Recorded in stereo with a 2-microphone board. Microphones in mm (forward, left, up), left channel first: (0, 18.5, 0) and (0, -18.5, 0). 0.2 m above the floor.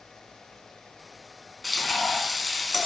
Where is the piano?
I don't hear a piano.